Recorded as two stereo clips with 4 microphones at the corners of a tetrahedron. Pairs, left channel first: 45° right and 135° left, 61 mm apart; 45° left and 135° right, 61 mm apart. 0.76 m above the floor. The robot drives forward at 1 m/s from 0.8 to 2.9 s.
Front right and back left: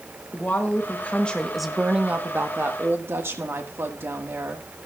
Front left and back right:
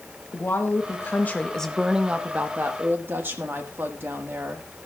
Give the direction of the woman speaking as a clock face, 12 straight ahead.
12 o'clock.